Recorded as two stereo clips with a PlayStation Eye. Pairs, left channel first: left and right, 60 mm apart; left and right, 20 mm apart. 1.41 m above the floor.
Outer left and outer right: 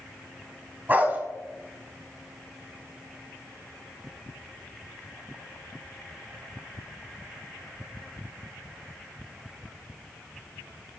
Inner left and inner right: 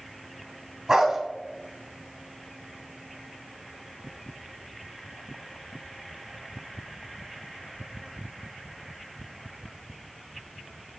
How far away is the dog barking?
About 2.5 m.